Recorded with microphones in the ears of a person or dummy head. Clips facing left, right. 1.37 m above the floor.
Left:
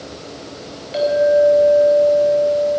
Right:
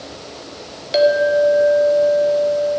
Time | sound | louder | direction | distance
0.9 | a clink | even | 65° right (ahead or behind) | 1.6 m